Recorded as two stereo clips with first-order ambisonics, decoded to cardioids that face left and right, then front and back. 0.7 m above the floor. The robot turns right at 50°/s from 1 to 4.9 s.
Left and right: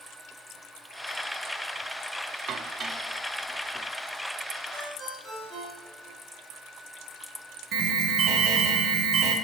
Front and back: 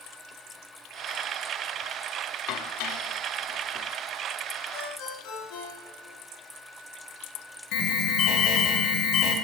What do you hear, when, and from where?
2.5 s dishes clattering: 35° right, 0.6 m; by 3.9 s 35° left, 0.6 m
4.7 s a ringtone: 30° right, 4.5 m; by 6.2 s 20° right, 4.5 m
7.7 s an alarm: 40° right, 1.8 m